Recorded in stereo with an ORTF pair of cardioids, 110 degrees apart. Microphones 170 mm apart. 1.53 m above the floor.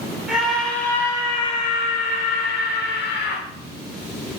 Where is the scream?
5° right, 3 m; by 3.4 s 80° left, 3.5 m.